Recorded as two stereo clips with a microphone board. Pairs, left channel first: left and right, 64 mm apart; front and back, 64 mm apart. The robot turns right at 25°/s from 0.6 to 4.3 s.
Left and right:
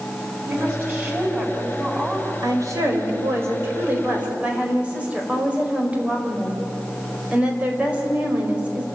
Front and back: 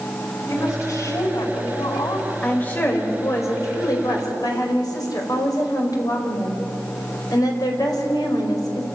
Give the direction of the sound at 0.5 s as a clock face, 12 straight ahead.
2 o'clock.